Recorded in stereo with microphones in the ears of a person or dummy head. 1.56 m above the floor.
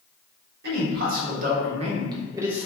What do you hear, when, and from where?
0.6 s a man speaking: 60° right (ahead or behind), 1.4 m; by 2.7 s centre (ahead or behind), 0.8 m